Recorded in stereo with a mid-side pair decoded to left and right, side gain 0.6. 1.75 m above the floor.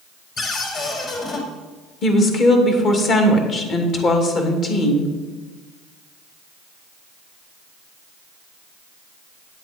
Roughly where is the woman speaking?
Ahead left.